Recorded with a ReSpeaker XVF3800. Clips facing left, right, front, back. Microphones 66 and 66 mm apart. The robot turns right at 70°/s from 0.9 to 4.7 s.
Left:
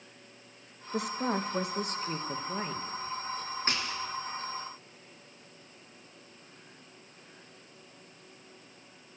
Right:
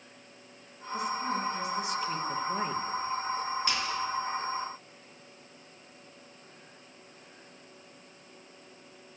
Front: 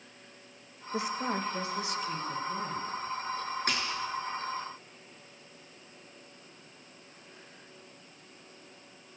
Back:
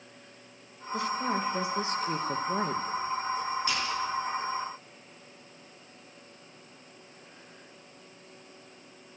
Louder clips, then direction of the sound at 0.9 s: Even, back 2 dB; 60° left.